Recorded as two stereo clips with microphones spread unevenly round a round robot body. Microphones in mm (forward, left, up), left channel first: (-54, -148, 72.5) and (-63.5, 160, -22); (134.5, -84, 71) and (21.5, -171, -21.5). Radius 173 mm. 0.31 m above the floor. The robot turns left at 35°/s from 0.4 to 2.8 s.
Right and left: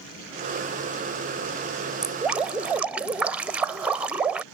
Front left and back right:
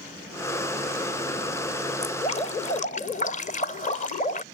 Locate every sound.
2.0 s dripping: 115° left; by 4.4 s 90° left